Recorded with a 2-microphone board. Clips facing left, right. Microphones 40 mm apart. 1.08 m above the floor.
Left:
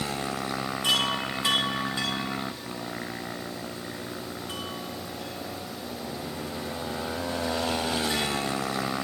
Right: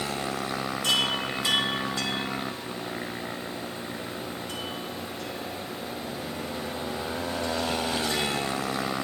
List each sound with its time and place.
0.8 s a chime: 20° left (ahead or behind), 3 m